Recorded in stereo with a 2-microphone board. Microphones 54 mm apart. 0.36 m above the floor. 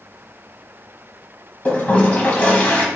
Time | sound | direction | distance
1.6 | a toilet flushing | 30° left (ahead or behind) | 1.1 m